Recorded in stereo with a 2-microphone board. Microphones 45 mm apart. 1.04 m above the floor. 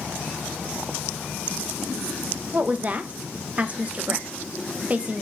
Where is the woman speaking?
30° right (ahead or behind), 0.5 m.